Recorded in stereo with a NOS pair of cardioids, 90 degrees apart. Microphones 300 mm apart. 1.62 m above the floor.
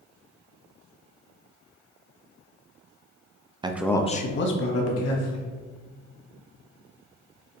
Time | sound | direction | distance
3.6 | a man speaking | 15° right | 0.5 m